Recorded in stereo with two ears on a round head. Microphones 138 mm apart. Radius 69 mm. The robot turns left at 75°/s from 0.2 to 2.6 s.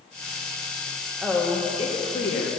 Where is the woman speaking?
170° right, 1.4 m; by 2.5 s 90° left, 1.4 m.